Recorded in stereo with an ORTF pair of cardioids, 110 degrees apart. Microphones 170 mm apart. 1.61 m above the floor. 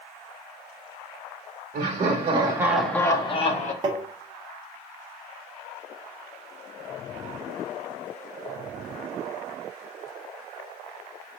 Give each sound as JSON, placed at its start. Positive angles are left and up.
{"t": 1.7, "sound": "laughter", "azimuth_deg": -55, "distance_m": 1.2}
{"t": 3.8, "sound": "tapping", "azimuth_deg": -25, "distance_m": 0.8}